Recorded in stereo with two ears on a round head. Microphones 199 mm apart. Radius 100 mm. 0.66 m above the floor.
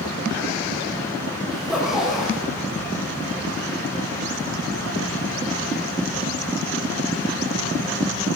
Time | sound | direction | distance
1.5 | a zipper | 5° right (ahead or behind) | 8 m